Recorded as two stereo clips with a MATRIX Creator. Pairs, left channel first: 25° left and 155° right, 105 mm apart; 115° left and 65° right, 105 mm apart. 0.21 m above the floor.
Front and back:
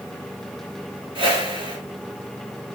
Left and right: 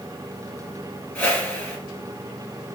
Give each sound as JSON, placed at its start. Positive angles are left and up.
{"t": 1.1, "sound": "a whoosh", "azimuth_deg": -170, "distance_m": 1.9}